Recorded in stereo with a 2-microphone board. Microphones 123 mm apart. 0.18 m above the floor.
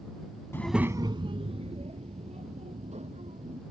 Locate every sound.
0.5 s a child speaking: 20° left (ahead or behind); by 3.6 s 65° right (ahead or behind)